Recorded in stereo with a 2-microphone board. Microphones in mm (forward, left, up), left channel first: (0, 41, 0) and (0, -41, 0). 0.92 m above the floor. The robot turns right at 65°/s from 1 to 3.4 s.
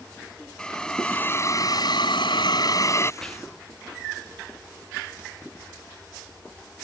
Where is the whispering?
10° left (ahead or behind); by 3.7 s 15° left (ahead or behind).